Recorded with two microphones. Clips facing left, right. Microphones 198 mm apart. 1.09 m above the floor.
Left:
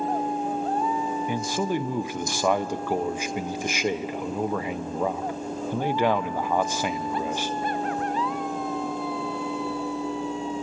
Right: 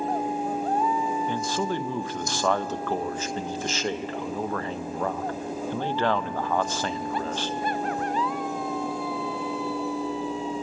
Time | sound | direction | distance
1.3 | a man speaking | 15° left (ahead or behind) | 0.6 m